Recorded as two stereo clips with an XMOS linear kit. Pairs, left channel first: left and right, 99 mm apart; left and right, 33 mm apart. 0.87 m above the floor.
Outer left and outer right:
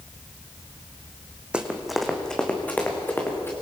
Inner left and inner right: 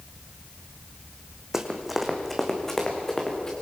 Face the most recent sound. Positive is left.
turn(degrees=25)  # may be behind; listen again after turning